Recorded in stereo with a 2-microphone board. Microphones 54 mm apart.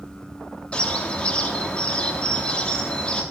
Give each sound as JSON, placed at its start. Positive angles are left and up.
{"t": 0.7, "sound": "a bird", "side_deg": 20, "distance_m": 1.0}